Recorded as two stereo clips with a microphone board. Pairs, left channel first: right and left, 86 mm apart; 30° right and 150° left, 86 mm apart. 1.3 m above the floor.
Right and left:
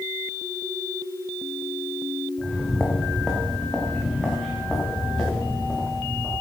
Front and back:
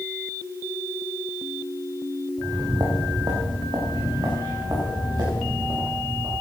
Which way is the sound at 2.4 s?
175° right.